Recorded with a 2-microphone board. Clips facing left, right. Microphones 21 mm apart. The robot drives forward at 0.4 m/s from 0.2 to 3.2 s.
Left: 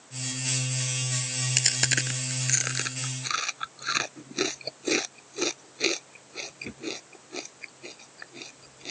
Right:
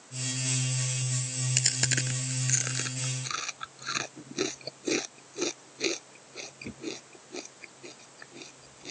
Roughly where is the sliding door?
No sliding door in this recording.